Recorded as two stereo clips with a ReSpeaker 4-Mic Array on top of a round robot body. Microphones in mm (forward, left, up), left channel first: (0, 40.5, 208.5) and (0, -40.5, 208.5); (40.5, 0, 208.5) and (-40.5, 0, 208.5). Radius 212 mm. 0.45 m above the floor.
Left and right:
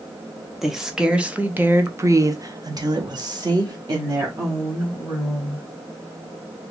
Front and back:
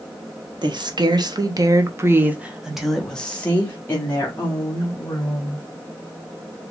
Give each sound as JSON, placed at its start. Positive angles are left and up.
{"t": 0.6, "sound": "a woman speaking", "azimuth_deg": -175, "distance_m": 1.3}